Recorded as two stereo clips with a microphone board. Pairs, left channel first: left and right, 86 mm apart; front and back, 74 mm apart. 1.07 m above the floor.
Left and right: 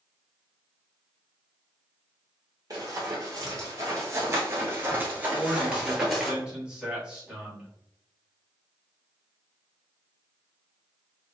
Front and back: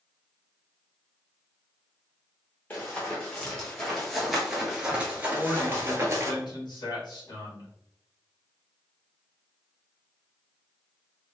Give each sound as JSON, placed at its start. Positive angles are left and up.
{"t": 2.7, "sound": "running footsteps", "azimuth_deg": -60, "distance_m": 1.7}
{"t": 5.3, "sound": "a man speaking", "azimuth_deg": -10, "distance_m": 1.8}